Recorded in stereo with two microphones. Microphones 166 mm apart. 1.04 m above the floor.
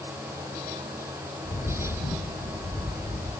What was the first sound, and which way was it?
A bird, 65° left (ahead or behind).